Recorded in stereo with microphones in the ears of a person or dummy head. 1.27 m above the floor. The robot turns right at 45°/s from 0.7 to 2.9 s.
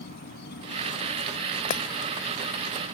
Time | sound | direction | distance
0.0 | an insect | 120° left | ?
1.7 | breaking glass | 40° left (ahead or behind) | ?